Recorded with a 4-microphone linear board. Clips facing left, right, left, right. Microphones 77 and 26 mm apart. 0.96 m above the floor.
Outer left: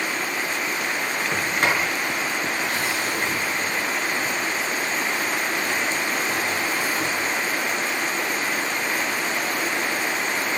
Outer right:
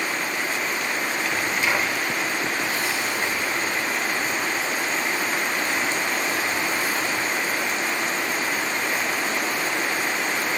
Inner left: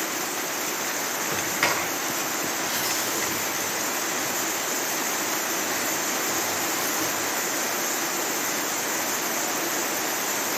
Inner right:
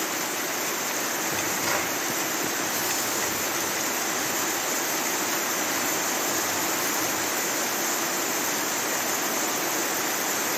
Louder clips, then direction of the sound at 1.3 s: Outer left 2 dB, inner left 4 dB; 60° left (ahead or behind).